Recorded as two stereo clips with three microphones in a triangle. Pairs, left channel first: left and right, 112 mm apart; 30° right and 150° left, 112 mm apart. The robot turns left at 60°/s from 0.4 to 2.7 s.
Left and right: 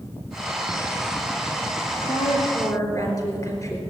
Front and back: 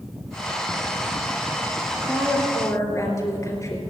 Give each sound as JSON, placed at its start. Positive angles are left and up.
{"t": 1.9, "sound": "a woman speaking", "azimuth_deg": 80, "distance_m": 3.0}